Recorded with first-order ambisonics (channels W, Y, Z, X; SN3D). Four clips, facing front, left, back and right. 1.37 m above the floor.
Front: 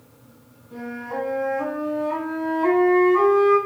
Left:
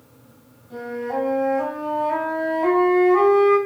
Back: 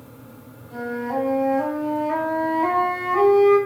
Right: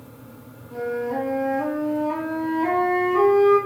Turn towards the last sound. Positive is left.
turn(degrees=145)